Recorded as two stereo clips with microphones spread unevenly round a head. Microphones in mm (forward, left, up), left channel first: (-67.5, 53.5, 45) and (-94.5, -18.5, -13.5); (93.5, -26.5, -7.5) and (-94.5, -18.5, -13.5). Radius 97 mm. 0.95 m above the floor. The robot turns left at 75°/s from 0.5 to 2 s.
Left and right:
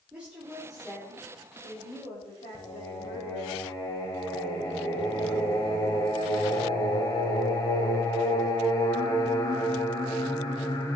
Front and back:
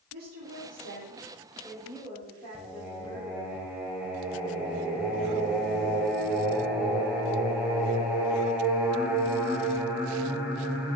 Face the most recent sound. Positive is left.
turn(degrees=95)